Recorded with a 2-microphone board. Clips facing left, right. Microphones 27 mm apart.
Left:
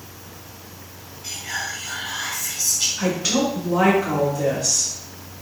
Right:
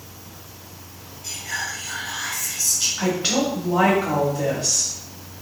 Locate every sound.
1.2 s whispering: 15° left (ahead or behind), 1.5 m
3.0 s a woman speaking: 45° right (ahead or behind), 1.8 m